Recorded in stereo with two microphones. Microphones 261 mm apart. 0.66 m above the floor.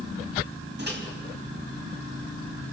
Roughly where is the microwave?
Right.